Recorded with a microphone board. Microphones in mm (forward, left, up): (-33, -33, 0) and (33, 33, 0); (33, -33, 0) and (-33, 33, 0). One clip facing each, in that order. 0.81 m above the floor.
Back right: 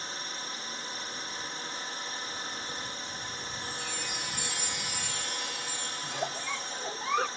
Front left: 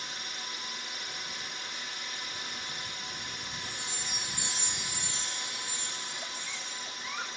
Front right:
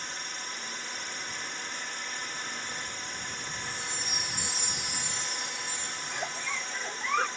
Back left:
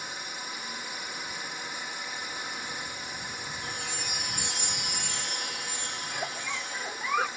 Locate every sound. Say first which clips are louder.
0.0 s a drone: back right 2 dB, back left 1 dB; 150° right
3.6 s a chime: back right 3 dB, back left 2 dB; 110° left
6.0 s a giggle: back right 8 dB, even; 135° right